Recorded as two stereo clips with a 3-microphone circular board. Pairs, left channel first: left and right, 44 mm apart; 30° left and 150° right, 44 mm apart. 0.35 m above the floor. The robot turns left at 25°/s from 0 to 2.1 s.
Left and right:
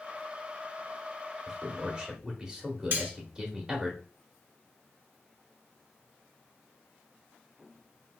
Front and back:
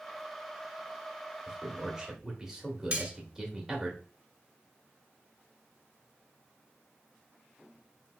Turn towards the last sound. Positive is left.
turn(degrees=-100)